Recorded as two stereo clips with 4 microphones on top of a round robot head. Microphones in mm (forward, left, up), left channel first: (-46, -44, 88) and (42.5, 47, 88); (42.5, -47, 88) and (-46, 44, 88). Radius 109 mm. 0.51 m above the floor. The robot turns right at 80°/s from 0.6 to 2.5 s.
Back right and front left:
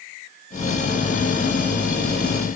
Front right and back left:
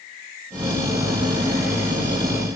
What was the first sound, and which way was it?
Only background noise.